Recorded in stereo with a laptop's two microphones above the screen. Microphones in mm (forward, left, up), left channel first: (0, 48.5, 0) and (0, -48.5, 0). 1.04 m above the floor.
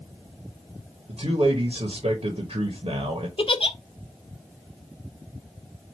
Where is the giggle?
60° left (ahead or behind), 0.7 m.